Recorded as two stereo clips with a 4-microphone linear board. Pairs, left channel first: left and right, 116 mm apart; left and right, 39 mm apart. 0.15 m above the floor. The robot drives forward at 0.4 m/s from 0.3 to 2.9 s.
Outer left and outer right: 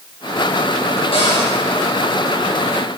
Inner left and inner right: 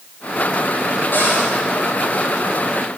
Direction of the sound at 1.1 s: 50° left (ahead or behind).